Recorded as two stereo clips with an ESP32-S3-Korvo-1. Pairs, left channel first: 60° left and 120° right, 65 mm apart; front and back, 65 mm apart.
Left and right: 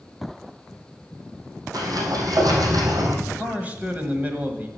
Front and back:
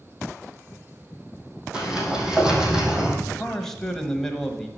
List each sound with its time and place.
1.7 s a sliding door: 100° right, 1.9 m
3.2 s a man speaking: 80° right, 1.2 m